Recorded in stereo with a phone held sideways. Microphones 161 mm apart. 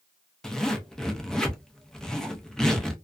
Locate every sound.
0.4 s a zipper: 5° left (ahead or behind), 0.5 m